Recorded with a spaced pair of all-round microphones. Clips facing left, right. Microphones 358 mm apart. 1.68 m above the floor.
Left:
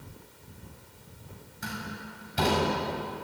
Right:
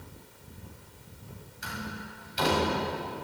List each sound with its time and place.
1.6 s a door slam: 65° left (ahead or behind), 8.5 m